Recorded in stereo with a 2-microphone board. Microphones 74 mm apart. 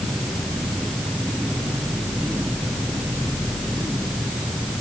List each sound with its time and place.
Only background noise.